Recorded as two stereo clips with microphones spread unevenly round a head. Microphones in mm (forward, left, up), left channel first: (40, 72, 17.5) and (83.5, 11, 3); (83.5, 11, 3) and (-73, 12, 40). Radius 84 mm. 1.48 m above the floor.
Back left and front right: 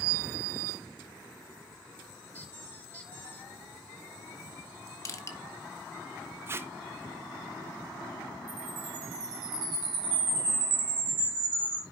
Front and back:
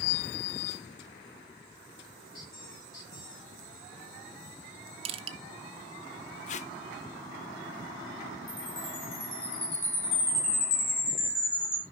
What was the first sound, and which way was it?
A squeak, 65° left.